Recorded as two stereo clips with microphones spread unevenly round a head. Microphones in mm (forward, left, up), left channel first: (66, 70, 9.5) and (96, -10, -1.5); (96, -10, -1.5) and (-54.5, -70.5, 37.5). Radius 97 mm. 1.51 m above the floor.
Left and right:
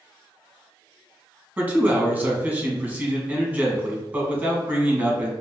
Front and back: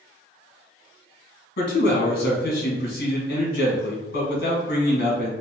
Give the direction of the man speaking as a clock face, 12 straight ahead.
12 o'clock.